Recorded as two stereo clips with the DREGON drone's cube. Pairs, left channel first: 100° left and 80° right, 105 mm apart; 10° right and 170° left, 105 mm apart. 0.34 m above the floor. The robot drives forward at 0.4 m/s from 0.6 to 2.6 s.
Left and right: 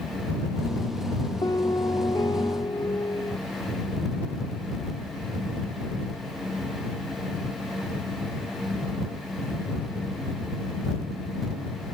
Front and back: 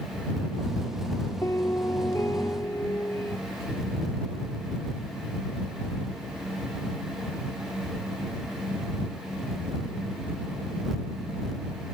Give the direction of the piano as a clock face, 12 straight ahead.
10 o'clock.